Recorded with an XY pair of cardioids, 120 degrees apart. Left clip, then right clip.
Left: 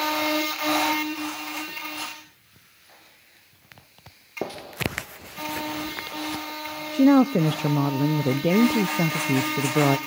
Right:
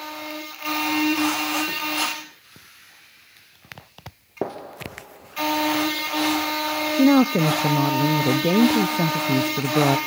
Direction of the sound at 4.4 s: 20° right.